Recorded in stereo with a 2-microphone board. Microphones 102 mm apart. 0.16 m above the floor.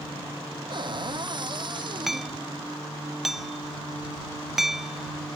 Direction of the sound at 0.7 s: 50° right (ahead or behind).